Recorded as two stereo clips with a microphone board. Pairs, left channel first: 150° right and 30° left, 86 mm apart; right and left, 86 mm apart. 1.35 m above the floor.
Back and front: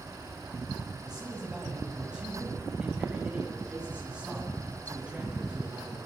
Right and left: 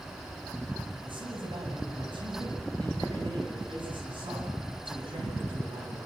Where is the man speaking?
110° left, 8.5 m; by 6.0 s 105° left, 11.5 m.